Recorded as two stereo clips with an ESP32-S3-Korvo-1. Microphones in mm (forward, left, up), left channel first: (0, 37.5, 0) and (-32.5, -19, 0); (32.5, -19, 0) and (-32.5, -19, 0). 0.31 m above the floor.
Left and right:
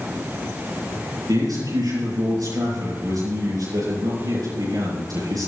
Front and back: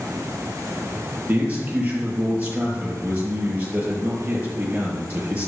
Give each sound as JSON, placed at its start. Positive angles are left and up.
{"t": 1.3, "sound": "a man speaking", "azimuth_deg": -115, "distance_m": 7.5}